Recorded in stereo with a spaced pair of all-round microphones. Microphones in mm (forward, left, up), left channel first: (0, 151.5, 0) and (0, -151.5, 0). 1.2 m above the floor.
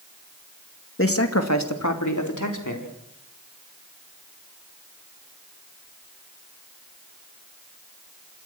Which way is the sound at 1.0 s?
45° left (ahead or behind).